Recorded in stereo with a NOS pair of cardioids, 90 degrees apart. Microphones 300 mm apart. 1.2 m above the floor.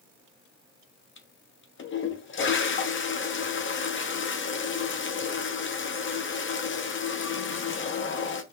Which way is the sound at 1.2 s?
45° left.